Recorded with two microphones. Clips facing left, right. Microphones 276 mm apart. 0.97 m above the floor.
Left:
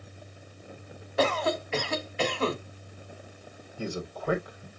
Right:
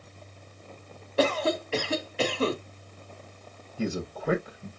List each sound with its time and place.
1.2 s a cough: 35° right (ahead or behind), 2 m
3.8 s a man speaking: 25° right (ahead or behind), 1.0 m